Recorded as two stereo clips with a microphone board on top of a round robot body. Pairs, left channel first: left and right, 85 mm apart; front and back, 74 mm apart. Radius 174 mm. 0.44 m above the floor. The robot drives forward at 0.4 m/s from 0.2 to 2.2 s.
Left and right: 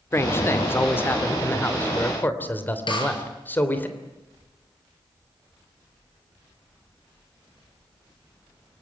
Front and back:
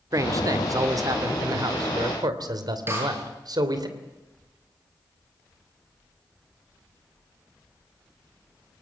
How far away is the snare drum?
About 7 m.